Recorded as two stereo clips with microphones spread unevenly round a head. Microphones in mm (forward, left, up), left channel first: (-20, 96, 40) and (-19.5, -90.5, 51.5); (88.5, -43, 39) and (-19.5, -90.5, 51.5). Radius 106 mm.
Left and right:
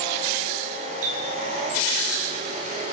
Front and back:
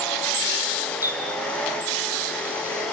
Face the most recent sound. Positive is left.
turn(degrees=-85)